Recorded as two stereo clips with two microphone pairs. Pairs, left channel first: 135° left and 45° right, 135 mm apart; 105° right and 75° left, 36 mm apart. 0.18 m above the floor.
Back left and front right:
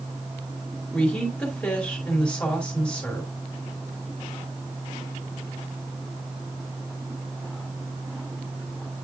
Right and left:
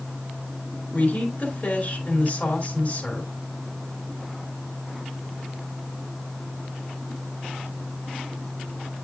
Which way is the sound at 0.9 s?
145° right.